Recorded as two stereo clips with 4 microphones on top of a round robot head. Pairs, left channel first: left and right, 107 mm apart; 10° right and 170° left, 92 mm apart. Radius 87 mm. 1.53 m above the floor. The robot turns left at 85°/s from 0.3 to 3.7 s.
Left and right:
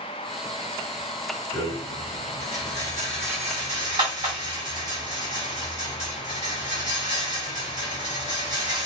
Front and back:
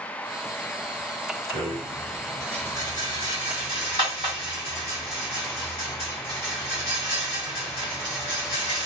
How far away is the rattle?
About 2.5 m.